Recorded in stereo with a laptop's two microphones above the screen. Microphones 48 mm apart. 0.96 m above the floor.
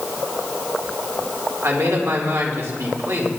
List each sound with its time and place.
1.6 s a man speaking: 70° right (ahead or behind), 2.5 m